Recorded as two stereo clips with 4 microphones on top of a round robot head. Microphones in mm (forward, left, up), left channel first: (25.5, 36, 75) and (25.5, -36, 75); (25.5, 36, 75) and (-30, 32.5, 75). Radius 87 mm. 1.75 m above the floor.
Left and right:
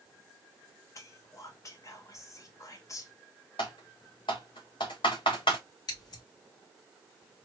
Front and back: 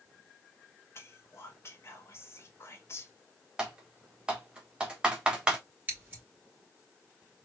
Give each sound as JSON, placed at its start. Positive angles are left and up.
{"t": 0.9, "sound": "whispering", "azimuth_deg": 45, "distance_m": 1.6}
{"t": 3.6, "sound": "typing on a keyboard", "azimuth_deg": 110, "distance_m": 1.4}
{"t": 5.9, "sound": "scissors", "azimuth_deg": 125, "distance_m": 2.5}